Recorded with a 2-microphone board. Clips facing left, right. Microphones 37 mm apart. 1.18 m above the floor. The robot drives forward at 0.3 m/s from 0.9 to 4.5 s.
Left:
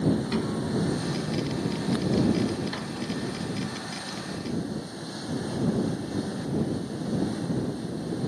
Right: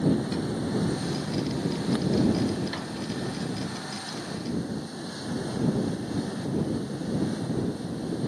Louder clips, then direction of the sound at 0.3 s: Left 1 dB; 35° left (ahead or behind).